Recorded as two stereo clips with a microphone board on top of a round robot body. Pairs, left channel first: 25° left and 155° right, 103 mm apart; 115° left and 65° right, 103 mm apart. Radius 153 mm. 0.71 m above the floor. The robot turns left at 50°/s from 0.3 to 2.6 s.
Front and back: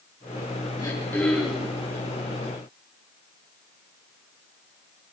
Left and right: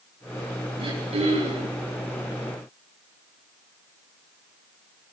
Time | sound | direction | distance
0.8 | throat clearing | 35° right | 9.5 m